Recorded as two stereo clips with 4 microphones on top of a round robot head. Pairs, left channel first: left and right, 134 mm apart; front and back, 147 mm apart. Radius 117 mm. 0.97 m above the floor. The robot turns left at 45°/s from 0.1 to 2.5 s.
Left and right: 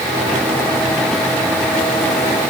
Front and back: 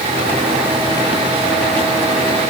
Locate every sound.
Only background noise.